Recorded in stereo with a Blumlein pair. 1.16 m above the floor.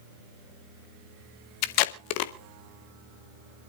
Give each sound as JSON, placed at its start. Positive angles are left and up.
{"t": 1.6, "sound": "tape being pulled", "azimuth_deg": 45, "distance_m": 0.9}